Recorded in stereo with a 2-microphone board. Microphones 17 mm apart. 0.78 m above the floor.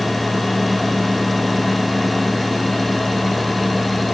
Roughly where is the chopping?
No chopping in this recording.